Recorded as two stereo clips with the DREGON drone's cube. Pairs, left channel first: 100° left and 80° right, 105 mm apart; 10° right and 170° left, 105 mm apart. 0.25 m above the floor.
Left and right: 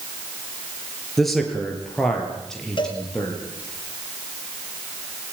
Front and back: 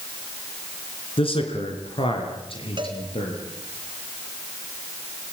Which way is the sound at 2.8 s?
135° left.